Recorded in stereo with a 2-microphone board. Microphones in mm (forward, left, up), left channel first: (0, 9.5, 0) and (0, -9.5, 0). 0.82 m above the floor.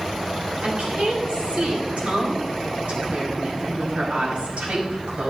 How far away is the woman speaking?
About 5 m.